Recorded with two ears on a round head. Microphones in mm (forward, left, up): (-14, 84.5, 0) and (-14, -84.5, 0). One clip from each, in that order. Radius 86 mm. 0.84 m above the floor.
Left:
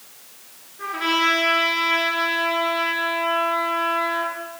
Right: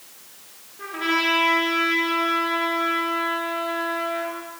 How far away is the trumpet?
About 6 m.